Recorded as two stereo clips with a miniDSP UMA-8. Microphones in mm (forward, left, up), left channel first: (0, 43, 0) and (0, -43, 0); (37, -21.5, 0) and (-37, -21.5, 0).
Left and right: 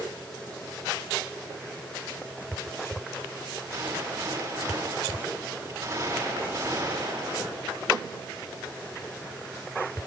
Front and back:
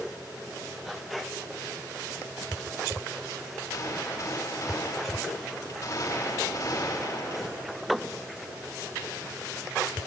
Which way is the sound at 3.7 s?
35° right.